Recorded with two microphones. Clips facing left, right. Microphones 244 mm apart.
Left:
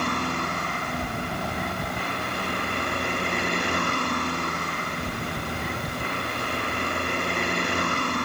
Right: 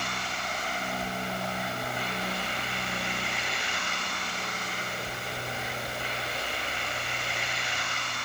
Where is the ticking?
I don't hear ticking.